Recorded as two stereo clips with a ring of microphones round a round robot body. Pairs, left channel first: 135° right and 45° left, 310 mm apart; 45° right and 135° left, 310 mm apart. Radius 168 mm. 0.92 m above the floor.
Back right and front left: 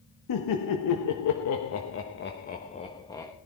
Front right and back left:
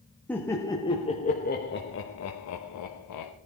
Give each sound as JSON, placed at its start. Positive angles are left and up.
{"t": 0.3, "sound": "laughter", "azimuth_deg": -130, "distance_m": 1.5}